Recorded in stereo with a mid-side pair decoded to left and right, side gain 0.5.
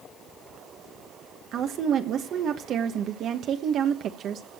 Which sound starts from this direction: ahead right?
A woman speaking, at 1.5 s.